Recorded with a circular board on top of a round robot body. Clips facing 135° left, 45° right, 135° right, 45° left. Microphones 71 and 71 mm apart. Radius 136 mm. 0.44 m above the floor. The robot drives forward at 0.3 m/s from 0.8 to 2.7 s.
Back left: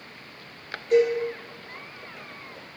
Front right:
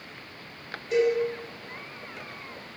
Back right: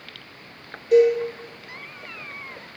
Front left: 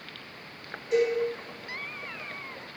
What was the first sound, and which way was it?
A cowbell, 175° right.